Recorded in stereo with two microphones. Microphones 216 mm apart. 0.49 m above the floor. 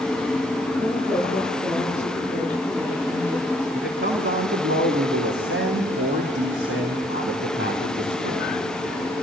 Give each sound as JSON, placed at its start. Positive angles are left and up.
{"t": 0.8, "sound": "a woman speaking", "side_deg": -25, "distance_m": 9.5}
{"t": 3.7, "sound": "a man speaking", "side_deg": -70, "distance_m": 3.5}